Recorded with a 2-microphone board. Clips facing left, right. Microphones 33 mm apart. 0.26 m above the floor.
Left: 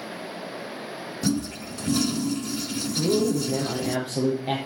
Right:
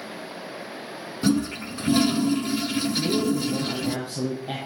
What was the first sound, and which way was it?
A toilet flushing, 35° right (ahead or behind).